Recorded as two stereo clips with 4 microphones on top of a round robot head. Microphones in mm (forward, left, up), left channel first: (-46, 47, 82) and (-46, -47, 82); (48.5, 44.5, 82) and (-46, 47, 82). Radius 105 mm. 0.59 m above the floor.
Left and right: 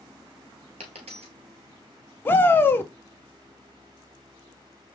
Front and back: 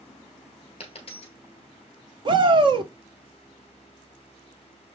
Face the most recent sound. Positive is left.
turn(degrees=155)